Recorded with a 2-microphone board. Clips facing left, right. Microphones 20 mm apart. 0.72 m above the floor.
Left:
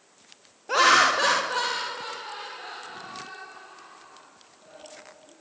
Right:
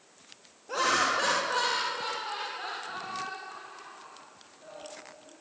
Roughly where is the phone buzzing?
No phone buzzing in this recording.